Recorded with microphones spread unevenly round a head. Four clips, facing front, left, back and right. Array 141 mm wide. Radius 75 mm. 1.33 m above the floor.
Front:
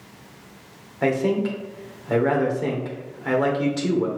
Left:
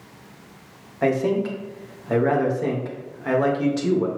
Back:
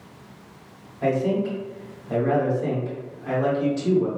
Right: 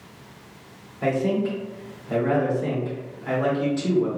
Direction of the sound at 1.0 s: 35° left.